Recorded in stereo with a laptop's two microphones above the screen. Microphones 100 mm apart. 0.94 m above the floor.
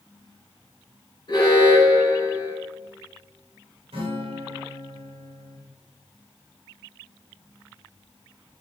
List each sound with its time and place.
1.3 s an alarm: 50° left (ahead or behind), 3.5 m
3.9 s a guitar: 75° right (ahead or behind), 2.5 m